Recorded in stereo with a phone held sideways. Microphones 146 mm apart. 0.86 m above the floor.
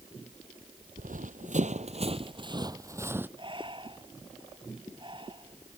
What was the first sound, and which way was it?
Running footsteps, 65° right (ahead or behind).